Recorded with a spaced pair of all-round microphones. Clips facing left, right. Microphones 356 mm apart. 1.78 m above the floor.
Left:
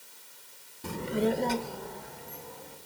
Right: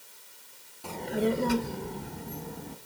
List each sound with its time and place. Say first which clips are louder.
0.8 s a child speaking: even; 25° left (ahead or behind), 1.0 m; by 2.8 s 60° right (ahead or behind), 1.9 m